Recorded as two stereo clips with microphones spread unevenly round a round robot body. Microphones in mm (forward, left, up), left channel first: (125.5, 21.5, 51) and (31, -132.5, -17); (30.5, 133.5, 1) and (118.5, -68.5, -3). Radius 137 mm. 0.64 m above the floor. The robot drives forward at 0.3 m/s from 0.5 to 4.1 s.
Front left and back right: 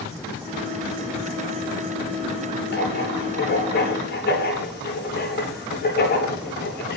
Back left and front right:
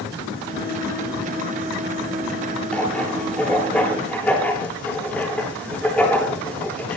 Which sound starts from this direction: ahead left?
Writing, at 2.7 s.